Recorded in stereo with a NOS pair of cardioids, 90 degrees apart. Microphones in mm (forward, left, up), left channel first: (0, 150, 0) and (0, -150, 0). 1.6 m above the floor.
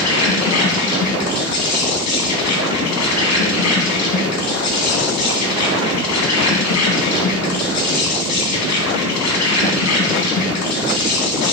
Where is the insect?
60° left, 3 m.